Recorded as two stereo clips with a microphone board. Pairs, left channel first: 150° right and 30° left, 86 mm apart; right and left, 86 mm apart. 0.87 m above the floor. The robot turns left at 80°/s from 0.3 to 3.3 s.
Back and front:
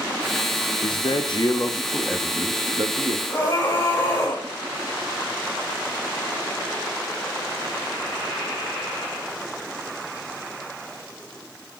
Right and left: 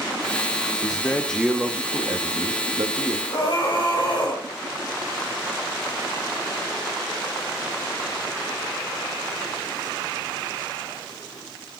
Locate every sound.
0.8 s a man speaking: 135° right, 0.9 m; by 3.2 s 35° left, 0.9 m
3.3 s a scream: 85° right, 5.5 m; by 4.5 s 90° right, 5.5 m